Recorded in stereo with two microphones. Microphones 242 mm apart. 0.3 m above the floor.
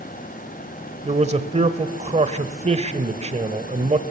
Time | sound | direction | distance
1.1 | a man speaking | 25° right (ahead or behind) | 1.0 m